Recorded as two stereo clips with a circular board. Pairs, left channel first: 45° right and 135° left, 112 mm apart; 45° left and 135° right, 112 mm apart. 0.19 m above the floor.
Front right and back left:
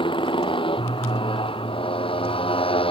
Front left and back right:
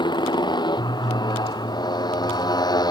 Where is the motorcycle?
5° right; by 2.9 s 10° right.